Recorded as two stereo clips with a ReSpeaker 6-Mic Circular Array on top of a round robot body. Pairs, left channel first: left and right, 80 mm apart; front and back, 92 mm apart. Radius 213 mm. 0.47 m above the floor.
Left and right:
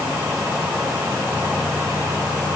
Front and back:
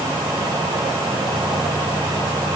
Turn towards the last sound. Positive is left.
No sound to turn to.